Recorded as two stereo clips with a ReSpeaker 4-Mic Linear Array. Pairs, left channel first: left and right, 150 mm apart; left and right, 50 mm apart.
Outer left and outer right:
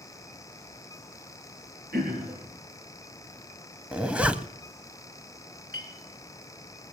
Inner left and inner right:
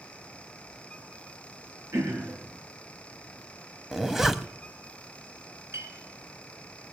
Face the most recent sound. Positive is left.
turn(degrees=-75)  # may be behind; listen again after turning